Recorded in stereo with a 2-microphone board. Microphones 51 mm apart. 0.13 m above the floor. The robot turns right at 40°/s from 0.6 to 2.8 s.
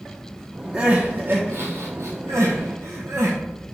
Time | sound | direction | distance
0.7 | crying | 25° right (ahead or behind) | 1.0 m